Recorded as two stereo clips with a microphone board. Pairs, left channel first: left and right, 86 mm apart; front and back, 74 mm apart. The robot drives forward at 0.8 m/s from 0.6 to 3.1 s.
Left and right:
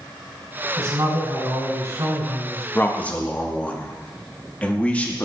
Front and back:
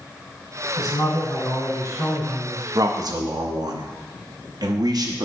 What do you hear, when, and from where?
0.8 s a man speaking: 35° right, 3.5 m; by 2.6 s 60° right, 2 m
2.8 s a man speaking: 155° left, 0.6 m; by 5.2 s 165° left, 0.8 m